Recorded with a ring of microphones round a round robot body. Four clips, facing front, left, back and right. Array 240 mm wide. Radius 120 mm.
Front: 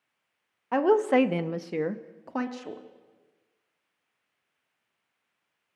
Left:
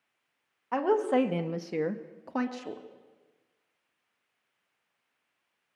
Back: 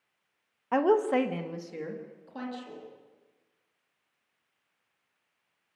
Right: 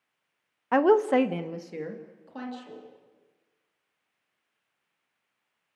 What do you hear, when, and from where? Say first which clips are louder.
0.7 s a woman speaking: right 5 dB, front 2 dB; 90° right, 1.1 m; by 2.8 s 45° left, 2.5 m